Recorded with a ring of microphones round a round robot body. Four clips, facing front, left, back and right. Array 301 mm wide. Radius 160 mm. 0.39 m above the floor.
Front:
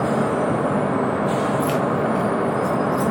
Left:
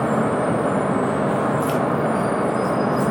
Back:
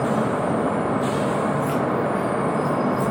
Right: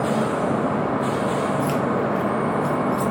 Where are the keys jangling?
10° left, 1.6 m; by 3.1 s 25° right, 1.7 m.